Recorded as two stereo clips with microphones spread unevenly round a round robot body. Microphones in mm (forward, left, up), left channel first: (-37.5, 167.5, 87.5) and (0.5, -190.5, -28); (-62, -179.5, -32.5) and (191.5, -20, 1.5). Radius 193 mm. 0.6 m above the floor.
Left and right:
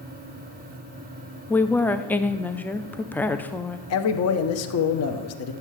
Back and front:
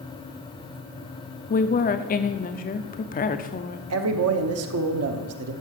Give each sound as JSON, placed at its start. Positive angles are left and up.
{"t": 1.5, "sound": "a woman speaking", "azimuth_deg": -150, "distance_m": 0.6}
{"t": 3.9, "sound": "a man speaking", "azimuth_deg": 40, "distance_m": 1.0}